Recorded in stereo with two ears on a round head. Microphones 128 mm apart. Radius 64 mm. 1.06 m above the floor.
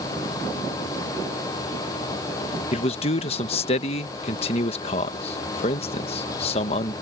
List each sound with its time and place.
2.7 s a man speaking: 45° left (ahead or behind)